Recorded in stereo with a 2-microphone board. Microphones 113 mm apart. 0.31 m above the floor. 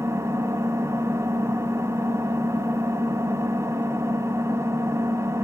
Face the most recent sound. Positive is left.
turn(degrees=-25)  # may be behind; listen again after turning